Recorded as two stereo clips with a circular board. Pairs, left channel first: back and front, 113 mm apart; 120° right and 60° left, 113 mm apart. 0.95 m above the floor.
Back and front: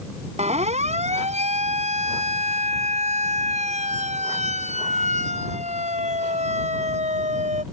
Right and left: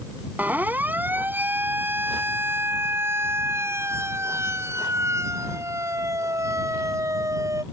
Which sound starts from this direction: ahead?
A siren, at 0.4 s.